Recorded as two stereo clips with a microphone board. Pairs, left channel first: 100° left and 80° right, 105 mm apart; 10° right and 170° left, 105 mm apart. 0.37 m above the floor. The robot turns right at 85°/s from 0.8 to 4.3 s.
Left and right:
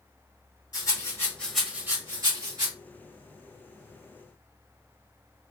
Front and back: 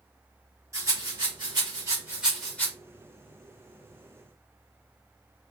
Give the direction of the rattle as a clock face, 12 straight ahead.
8 o'clock.